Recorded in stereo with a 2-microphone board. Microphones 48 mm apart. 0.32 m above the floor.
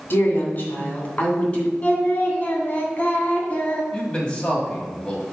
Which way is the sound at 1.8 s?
35° left (ahead or behind).